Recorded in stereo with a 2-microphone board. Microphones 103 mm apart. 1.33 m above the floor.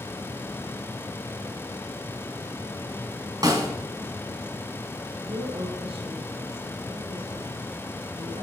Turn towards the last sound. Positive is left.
turn(degrees=-70)  # may be behind; listen again after turning